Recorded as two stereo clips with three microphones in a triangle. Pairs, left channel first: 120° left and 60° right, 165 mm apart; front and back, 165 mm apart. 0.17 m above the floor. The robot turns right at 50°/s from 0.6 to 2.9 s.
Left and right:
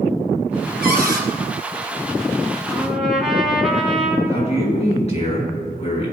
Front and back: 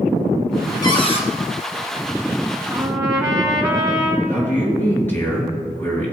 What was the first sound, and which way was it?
A cupboard door, 65° right.